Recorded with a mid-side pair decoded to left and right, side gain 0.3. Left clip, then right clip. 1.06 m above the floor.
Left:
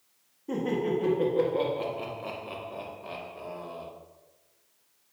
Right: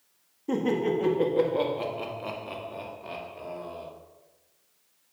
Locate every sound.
0.5 s laughter: 60° right, 1.7 m; by 3.9 s 5° right, 2.5 m